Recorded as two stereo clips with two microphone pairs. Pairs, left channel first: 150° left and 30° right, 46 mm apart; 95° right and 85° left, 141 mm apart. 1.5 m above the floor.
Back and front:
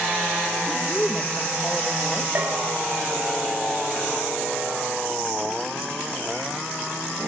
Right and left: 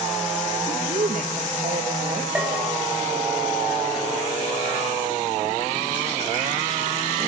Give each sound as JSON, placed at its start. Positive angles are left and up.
{"t": 0.7, "sound": "a woman speaking", "azimuth_deg": 70, "distance_m": 1.9}
{"t": 2.4, "sound": "a bell", "azimuth_deg": 5, "distance_m": 7.0}